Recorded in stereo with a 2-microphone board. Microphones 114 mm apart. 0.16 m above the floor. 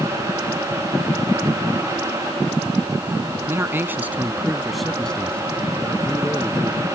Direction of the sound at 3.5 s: 20° right (ahead or behind).